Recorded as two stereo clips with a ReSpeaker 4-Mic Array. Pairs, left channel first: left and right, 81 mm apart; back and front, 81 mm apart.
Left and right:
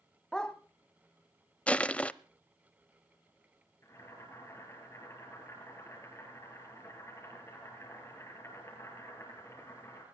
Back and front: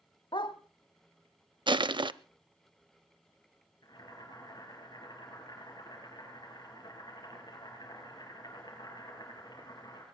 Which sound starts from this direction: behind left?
Boiling, at 3.8 s.